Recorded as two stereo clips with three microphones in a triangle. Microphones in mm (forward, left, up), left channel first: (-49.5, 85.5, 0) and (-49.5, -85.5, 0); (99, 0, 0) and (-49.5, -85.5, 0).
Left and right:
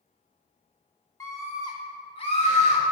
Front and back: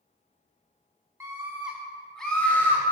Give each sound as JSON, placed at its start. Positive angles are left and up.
{"t": 1.2, "sound": "a scream", "azimuth_deg": 150, "distance_m": 1.3}